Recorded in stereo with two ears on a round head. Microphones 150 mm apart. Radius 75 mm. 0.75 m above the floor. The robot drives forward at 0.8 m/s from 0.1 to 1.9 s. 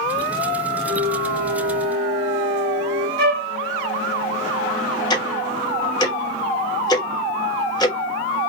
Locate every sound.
0.9 s a flute: 25° right (ahead or behind), 1.4 m; by 3.1 s 15° right (ahead or behind), 2 m
3.2 s a flute: 60° right (ahead or behind), 1.1 m
5.1 s ticking: 25° left (ahead or behind), 1.1 m